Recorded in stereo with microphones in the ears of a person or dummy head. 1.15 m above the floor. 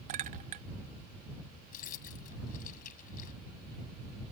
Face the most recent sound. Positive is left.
turn(degrees=45)  # may be behind; listen again after turning